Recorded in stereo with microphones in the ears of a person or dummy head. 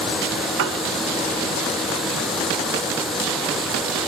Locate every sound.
0.6 s a piano: 70° right (ahead or behind), 1.6 m